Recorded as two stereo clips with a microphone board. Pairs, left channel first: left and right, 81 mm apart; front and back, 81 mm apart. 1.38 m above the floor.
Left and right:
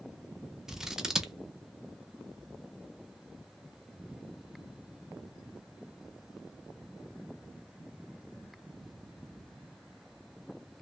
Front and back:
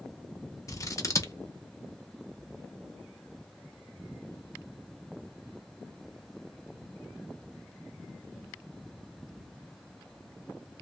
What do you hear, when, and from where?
0.7 s scissors: 10° right, 0.5 m